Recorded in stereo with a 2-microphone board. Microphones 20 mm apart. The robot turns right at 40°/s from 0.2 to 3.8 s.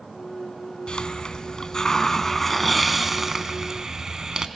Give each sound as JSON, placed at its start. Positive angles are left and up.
{"t": 0.9, "sound": "a hiss", "azimuth_deg": 95, "distance_m": 1.0}